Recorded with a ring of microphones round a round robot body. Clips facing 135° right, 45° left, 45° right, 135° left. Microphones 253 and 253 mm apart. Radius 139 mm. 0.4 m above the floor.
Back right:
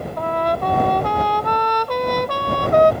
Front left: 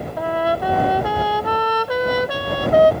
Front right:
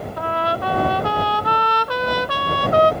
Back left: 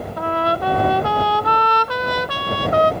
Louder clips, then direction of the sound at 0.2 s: Front left 1 dB, back left 3 dB; 130° left.